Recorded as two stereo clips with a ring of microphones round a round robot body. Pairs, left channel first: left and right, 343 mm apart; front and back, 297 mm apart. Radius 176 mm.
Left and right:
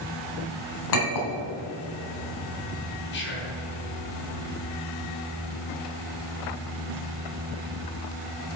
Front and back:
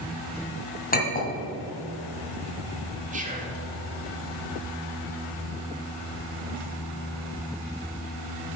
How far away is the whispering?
About 1.9 m.